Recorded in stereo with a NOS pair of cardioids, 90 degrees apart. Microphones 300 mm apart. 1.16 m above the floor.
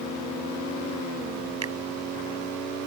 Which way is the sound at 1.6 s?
50° right.